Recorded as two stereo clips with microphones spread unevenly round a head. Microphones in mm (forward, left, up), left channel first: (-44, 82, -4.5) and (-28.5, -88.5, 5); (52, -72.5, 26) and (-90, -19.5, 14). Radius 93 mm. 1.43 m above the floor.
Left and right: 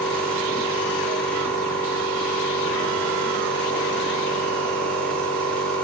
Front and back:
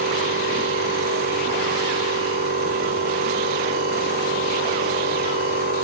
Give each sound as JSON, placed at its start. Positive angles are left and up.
{"t": 0.0, "sound": "a machine running", "azimuth_deg": 180, "distance_m": 5.0}